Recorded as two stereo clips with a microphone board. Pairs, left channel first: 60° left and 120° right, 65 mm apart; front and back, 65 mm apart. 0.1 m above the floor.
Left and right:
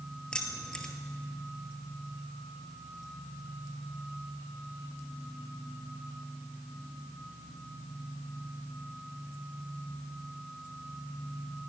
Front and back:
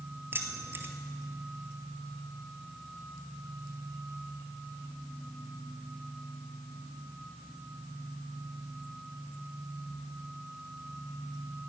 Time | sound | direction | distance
0.3 | keys jangling | 135° left | 1.3 m